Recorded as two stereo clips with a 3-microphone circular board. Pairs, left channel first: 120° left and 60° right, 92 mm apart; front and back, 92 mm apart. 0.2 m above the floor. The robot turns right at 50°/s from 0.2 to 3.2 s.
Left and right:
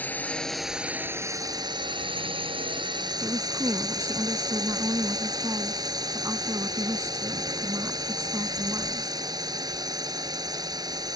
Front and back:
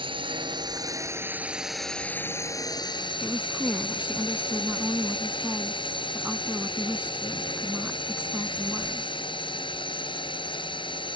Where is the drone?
170° right; by 11.2 s 20° right.